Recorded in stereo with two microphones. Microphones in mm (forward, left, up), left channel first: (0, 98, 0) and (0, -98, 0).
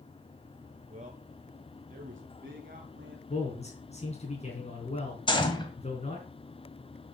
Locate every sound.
0.9 s a man speaking: 35° right (ahead or behind), 1.2 m; by 3.2 s 50° right (ahead or behind), 2.5 m
3.3 s a man speaking: 35° left (ahead or behind), 3.5 m
5.3 s a gunshot: 25° left (ahead or behind), 2 m